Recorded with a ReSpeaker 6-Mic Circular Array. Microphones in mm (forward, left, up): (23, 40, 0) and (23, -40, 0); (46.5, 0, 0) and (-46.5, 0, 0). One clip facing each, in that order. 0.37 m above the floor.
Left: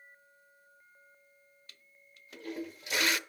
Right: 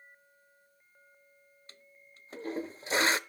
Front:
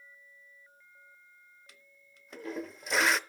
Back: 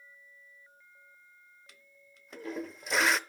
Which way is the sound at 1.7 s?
90° right.